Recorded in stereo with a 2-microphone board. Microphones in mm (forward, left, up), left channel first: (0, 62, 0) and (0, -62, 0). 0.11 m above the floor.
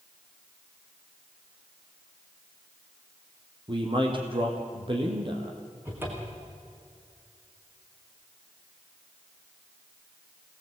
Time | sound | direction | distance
3.7 | a man speaking | 45° right (ahead or behind) | 4.5 m
5.8 | a cupboard door | 15° right (ahead or behind) | 5 m